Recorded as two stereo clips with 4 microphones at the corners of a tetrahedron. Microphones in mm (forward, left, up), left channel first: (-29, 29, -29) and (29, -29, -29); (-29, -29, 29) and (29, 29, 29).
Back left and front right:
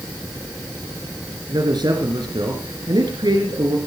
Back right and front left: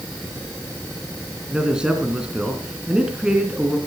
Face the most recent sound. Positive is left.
turn(degrees=-35)